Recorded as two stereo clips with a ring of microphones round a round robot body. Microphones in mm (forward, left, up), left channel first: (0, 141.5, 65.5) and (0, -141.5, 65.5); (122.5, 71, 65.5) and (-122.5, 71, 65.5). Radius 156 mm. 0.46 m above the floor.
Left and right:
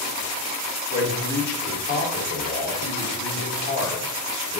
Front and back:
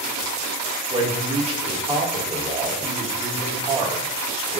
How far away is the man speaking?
About 1.6 m.